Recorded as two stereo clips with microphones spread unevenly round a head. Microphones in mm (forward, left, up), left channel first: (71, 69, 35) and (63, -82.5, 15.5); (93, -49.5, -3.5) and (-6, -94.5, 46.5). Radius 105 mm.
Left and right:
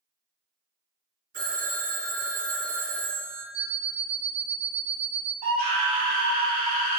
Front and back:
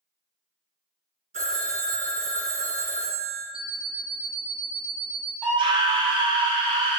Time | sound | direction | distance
1.3 | a phone ringing | 130° right | 1.0 m
3.5 | an alarm clock | 110° right | 0.7 m
5.4 | a scream | 100° right | 1.6 m